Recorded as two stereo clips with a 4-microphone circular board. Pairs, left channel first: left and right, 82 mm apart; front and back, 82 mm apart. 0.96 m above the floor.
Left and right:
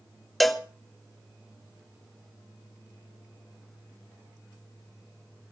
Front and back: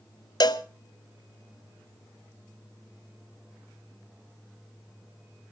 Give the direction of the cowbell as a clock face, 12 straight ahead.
12 o'clock.